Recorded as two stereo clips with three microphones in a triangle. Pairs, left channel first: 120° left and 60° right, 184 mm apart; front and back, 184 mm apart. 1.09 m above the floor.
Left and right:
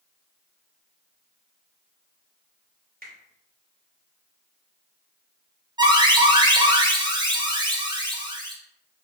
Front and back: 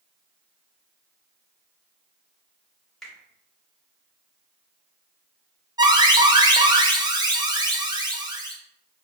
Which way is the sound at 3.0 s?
90° right.